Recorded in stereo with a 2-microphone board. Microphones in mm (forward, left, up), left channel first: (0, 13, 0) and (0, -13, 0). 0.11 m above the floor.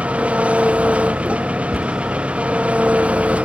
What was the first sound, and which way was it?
An engine running, 60° right (ahead or behind).